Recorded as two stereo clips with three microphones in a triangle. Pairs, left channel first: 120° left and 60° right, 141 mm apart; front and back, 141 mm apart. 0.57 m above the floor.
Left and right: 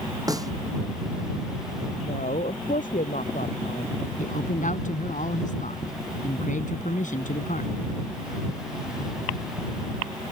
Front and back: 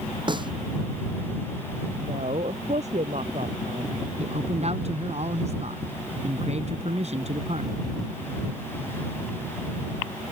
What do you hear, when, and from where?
0.3 s a snare drum: 125° right
2.0 s a woman speaking: 145° left
4.2 s a man speaking: 140° left